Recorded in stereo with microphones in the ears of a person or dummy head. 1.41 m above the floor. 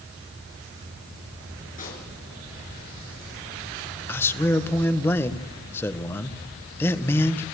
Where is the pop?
40° left (ahead or behind), 5 m.